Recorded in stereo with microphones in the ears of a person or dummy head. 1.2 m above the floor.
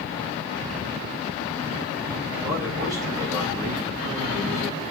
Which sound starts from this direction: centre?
A man speaking, at 2.4 s.